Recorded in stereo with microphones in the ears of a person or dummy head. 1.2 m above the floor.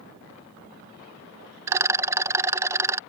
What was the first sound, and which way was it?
A rattle, 15° right (ahead or behind).